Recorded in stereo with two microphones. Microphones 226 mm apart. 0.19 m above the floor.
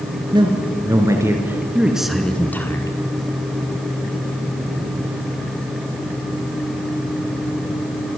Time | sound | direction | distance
0.3 | a man speaking | 20° right (ahead or behind) | 3.5 m